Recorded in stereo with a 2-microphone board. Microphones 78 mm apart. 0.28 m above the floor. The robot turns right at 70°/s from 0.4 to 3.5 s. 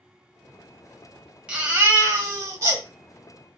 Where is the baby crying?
160° right, 0.9 m; by 2.8 s 65° right, 0.9 m.